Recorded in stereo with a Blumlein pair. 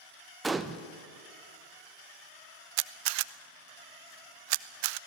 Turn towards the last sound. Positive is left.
turn(degrees=-45)